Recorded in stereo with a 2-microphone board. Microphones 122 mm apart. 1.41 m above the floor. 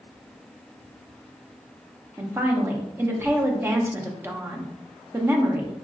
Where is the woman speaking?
20° right (ahead or behind), 0.6 m.